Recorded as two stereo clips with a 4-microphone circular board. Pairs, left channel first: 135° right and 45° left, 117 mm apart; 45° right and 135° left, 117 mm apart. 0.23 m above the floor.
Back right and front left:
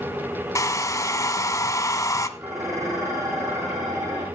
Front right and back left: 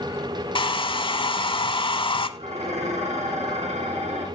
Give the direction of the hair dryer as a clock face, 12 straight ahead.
3 o'clock.